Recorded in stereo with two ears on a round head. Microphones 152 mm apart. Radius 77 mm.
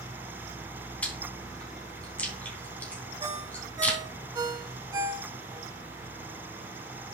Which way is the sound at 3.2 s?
20° right (ahead or behind).